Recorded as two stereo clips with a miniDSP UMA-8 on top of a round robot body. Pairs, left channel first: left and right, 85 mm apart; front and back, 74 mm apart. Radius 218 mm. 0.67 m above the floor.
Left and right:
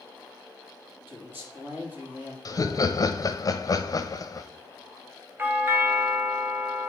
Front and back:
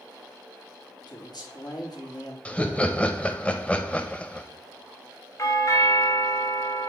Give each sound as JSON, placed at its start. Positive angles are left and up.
{"t": 1.1, "sound": "a man speaking", "azimuth_deg": -20, "distance_m": 2.5}
{"t": 2.5, "sound": "laughter", "azimuth_deg": 70, "distance_m": 0.9}
{"t": 5.4, "sound": "a doorbell", "azimuth_deg": -30, "distance_m": 1.5}